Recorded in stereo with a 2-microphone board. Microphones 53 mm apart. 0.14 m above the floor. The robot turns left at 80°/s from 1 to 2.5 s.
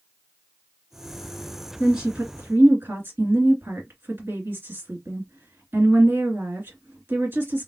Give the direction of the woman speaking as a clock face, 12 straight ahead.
12 o'clock.